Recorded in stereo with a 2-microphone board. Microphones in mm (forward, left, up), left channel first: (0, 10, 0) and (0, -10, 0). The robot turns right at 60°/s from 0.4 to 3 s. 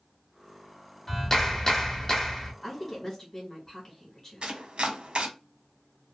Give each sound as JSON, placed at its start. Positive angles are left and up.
{"t": 1.1, "sound": "a clap", "side_deg": 25, "distance_m": 0.9}
{"t": 2.6, "sound": "a woman speaking", "side_deg": 10, "distance_m": 1.4}
{"t": 4.4, "sound": "chopping", "side_deg": -70, "distance_m": 0.6}